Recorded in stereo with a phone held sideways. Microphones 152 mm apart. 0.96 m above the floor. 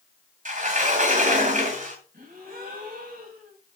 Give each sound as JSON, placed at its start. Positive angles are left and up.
{"t": 0.5, "sound": "a sliding door", "side_deg": -55, "distance_m": 2.0}
{"t": 2.1, "sound": "a gasp", "side_deg": -90, "distance_m": 4.0}